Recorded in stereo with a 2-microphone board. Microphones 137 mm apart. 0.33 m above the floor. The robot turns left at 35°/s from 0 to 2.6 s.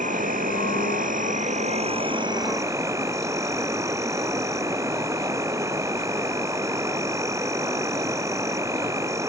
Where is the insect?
70° right; by 9.3 s 160° right.